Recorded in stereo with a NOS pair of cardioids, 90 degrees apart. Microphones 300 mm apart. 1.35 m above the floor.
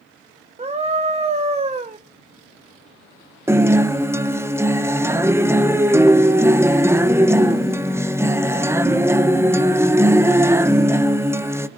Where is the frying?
I don't hear frying.